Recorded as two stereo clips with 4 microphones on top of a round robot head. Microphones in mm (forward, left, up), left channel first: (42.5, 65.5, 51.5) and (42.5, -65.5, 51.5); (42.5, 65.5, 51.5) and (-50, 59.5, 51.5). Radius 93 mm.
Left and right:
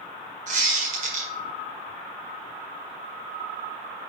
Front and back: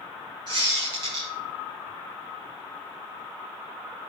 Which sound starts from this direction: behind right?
A squeak, at 0.5 s.